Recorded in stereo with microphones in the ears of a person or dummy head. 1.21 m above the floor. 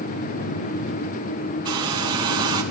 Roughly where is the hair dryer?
Centre.